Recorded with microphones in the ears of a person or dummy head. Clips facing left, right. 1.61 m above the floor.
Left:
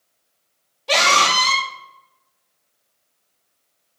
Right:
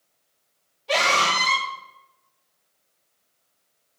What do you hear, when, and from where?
0.9 s a scream: 75° left (ahead or behind), 3 m